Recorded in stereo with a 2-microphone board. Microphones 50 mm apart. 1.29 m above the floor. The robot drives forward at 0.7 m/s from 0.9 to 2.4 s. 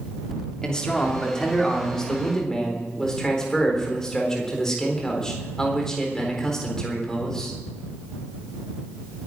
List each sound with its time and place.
0.6 s a man speaking: 15° left (ahead or behind), 3 m; by 7.5 s 10° left (ahead or behind), 4 m